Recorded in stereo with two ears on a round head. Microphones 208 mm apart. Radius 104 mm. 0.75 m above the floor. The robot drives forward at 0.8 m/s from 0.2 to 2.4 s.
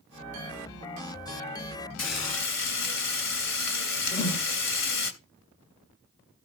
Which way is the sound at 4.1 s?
20° left (ahead or behind).